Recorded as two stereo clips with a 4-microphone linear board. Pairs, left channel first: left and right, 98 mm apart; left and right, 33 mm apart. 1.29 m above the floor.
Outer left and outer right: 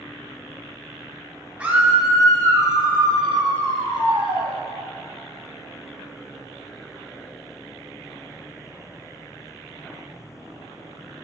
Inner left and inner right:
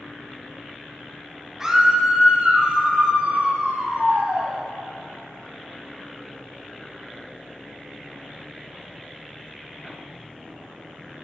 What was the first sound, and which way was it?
A scream, 15° right (ahead or behind).